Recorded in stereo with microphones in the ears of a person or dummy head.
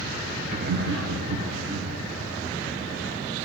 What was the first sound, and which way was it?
Laughter, 35° right (ahead or behind).